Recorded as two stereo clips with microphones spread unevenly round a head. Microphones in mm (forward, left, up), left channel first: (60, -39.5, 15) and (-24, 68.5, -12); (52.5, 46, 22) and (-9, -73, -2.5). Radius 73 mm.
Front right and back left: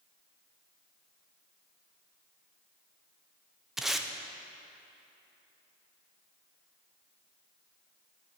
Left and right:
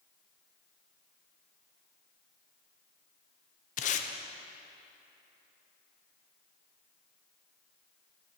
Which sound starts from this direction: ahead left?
Tape being pulled, at 3.8 s.